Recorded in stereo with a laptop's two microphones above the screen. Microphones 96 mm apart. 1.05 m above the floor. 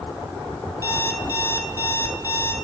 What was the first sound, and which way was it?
An alarm clock, 25° left (ahead or behind).